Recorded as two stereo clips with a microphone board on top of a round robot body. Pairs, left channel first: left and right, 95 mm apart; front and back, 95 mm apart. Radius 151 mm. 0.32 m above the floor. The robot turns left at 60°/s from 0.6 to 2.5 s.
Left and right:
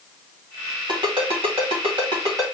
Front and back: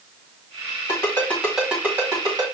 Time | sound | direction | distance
0.9 | a ringtone | 50° right | 2 m